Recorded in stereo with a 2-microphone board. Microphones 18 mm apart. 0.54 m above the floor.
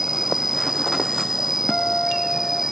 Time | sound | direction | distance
0.0 | an insect | 20° right (ahead or behind) | ?
1.7 | a guitar | 80° left | ?